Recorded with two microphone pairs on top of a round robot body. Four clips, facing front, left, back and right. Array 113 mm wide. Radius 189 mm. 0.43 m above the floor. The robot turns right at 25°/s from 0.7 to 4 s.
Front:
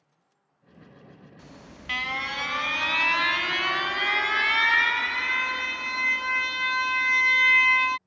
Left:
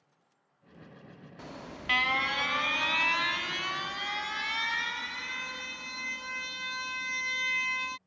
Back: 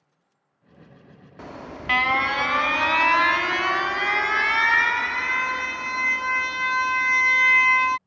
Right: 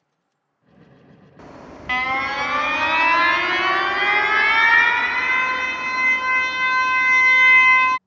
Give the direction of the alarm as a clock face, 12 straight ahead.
6 o'clock.